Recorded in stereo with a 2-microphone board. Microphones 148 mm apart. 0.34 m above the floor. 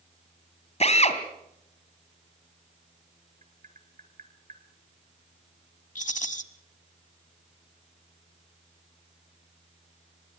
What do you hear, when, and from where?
0.8 s a drill: 45° left (ahead or behind), 2.5 m
3.4 s tapping: 60° right (ahead or behind), 2 m
6.0 s a rattle: 60° left (ahead or behind), 1.3 m